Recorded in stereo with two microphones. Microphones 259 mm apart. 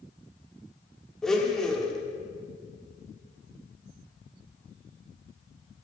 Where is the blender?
Centre (ahead or behind), 1.3 m.